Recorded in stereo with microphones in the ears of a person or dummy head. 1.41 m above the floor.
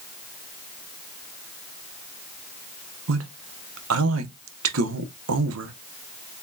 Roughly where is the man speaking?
Right.